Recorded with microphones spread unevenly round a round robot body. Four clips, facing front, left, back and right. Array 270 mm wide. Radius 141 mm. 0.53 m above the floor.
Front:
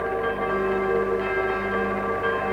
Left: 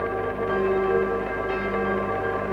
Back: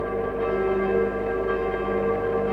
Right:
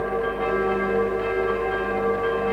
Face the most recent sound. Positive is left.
No sound to turn to.